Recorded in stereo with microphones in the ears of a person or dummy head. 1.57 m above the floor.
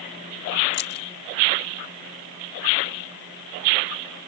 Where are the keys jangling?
55° left (ahead or behind).